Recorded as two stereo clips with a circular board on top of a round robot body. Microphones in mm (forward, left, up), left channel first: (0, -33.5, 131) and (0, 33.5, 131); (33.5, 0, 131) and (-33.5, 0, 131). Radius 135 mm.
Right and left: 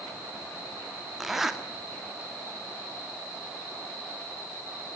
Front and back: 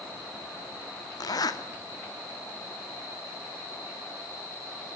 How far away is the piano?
No piano in this recording.